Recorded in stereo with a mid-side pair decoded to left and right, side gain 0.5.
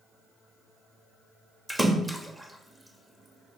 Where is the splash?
15° right, 2.5 m.